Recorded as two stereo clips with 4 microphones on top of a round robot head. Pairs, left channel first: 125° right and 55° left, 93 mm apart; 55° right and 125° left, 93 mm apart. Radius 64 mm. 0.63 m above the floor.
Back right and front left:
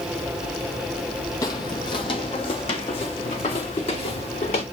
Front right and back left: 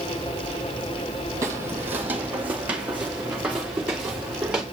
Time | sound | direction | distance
1.4 | footsteps | 175° right | 1.0 m